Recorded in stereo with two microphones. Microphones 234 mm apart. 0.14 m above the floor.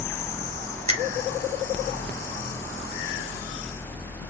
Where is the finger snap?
30° right (ahead or behind), 2 m.